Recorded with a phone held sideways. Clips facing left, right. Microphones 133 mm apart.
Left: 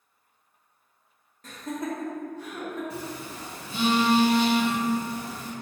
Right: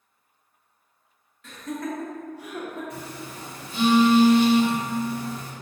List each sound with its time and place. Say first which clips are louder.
1.4 s laughter: even; 45° left (ahead or behind), 0.7 m; by 2.8 s 25° right (ahead or behind), 0.9 m
2.9 s a phone buzzing: left 1 dB; 30° left (ahead or behind), 0.9 m